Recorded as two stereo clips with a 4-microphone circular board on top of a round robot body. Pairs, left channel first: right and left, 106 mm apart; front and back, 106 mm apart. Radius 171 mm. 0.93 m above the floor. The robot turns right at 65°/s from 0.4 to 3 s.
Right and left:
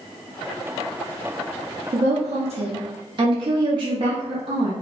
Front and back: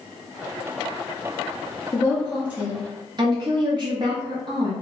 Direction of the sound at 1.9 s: 65° left.